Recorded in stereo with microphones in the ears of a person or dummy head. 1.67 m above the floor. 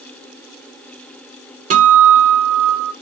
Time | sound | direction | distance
1.7 | a guitar | 40° right (ahead or behind) | 1.2 m